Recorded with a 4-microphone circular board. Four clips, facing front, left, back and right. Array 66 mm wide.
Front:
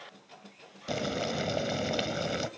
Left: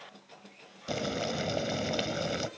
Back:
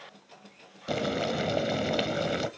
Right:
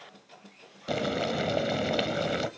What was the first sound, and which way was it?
Boiling, 120° right.